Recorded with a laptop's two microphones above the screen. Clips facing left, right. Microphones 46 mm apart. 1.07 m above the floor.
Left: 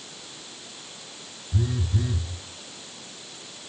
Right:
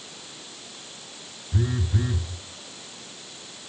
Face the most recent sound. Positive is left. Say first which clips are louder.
# right 1 dB
turn(degrees=-30)  # may be behind; listen again after turning